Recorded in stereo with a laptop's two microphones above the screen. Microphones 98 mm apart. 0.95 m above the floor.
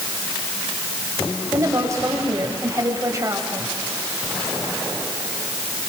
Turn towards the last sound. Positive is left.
turn(degrees=-30)  # may be behind; listen again after turning